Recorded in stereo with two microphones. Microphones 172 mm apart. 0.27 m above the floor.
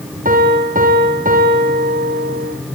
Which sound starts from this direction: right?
A piano, at 0.2 s.